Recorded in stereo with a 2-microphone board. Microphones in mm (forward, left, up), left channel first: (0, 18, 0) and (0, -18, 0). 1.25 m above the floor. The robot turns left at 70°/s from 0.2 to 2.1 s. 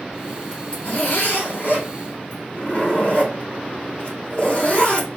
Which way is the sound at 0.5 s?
150° left.